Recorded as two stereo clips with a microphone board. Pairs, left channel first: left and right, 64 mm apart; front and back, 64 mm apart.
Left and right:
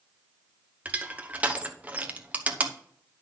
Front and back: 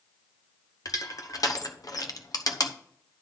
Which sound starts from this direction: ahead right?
Crushing, at 0.8 s.